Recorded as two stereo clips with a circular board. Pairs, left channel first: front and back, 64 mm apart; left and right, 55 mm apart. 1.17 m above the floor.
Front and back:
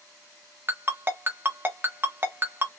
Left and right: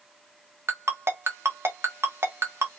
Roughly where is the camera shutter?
No camera shutter in this recording.